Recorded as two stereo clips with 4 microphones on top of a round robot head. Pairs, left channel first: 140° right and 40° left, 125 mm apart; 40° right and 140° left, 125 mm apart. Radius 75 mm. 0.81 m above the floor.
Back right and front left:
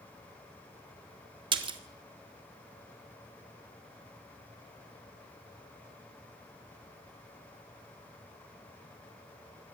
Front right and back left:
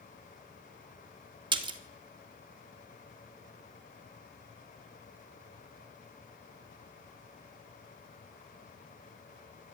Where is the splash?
90° left, 1.7 m.